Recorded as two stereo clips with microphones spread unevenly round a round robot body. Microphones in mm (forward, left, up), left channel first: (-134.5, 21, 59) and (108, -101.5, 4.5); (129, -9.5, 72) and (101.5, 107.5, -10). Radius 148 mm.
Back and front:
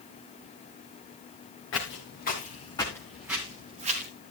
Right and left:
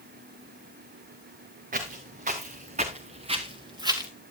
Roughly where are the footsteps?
Left.